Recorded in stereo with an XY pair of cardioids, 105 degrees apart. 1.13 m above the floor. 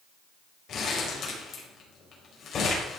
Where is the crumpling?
55° left, 5 m.